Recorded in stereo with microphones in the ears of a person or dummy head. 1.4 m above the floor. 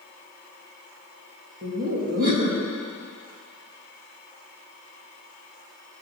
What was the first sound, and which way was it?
Laughter, 60° right (ahead or behind).